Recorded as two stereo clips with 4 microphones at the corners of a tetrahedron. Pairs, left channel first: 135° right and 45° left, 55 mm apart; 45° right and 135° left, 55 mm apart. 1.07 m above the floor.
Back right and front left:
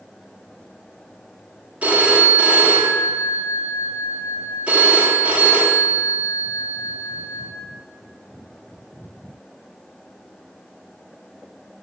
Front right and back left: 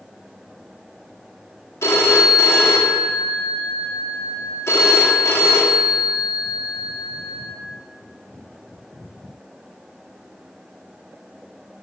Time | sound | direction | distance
1.8 | a phone ringing | 20° right | 1.1 m